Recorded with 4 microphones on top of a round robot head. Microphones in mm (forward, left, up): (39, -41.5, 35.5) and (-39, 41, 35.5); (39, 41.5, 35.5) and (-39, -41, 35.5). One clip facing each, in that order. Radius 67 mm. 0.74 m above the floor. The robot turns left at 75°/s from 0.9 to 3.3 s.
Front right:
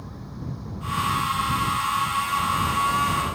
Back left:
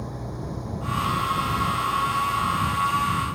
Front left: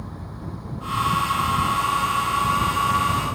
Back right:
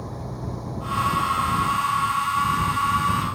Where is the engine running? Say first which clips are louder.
Back left 4 dB, back right 3 dB; 175° left; by 3.4 s 5° right.